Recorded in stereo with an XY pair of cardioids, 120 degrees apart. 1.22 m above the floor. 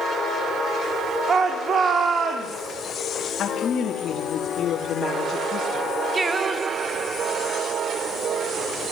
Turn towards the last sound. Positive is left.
turn(degrees=-25)